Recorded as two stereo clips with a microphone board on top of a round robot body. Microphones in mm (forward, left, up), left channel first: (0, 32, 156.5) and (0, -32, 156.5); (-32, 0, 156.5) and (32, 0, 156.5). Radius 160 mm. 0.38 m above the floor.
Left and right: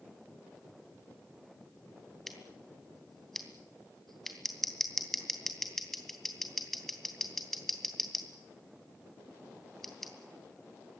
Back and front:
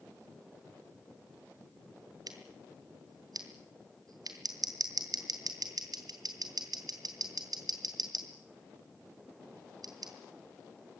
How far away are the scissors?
About 3 m.